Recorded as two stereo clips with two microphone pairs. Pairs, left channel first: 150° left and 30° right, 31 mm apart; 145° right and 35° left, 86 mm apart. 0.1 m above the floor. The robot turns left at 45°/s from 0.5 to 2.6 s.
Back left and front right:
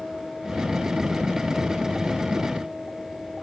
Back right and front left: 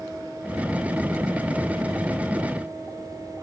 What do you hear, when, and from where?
Only background noise.